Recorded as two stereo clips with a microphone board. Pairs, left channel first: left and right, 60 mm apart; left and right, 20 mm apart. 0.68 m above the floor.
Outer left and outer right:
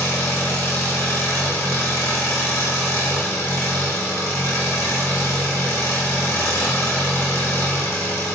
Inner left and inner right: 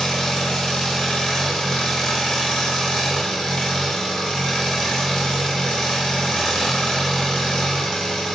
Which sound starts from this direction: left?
An engine running, at 0.0 s.